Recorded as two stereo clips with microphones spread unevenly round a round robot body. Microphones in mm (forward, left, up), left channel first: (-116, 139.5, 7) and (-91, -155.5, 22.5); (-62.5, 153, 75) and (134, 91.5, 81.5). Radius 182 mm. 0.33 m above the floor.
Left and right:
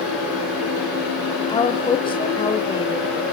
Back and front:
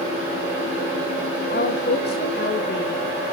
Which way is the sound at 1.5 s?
160° left.